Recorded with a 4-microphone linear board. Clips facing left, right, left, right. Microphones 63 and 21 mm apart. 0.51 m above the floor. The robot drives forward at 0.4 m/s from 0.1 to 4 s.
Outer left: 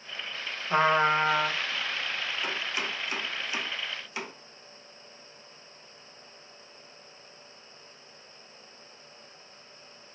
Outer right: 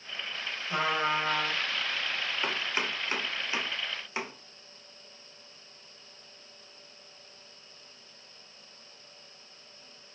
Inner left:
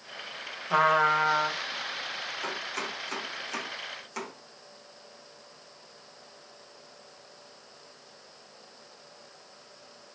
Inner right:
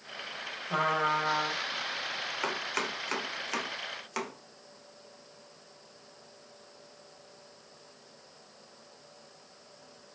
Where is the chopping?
40° right (ahead or behind), 1.6 m; by 4.3 s 30° right (ahead or behind), 2 m.